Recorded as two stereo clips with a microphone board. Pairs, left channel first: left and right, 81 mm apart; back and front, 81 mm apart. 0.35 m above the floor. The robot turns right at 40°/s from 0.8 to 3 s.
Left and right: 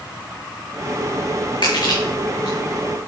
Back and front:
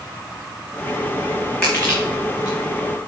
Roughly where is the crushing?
Left.